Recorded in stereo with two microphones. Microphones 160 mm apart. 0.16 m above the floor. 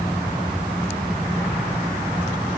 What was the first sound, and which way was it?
Only background noise.